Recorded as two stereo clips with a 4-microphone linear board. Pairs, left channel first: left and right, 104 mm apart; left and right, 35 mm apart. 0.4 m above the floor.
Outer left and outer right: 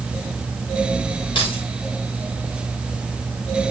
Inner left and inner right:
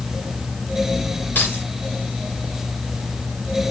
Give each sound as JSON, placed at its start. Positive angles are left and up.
{"t": 1.4, "sound": "keys jangling", "side_deg": 55, "distance_m": 7.0}